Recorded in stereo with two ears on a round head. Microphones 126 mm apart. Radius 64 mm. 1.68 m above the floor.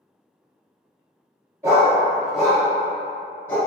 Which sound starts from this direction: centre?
A dog barking, at 1.6 s.